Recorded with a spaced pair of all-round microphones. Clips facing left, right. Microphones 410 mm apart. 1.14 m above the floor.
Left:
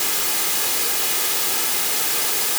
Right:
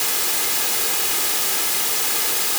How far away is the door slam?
No door slam in this recording.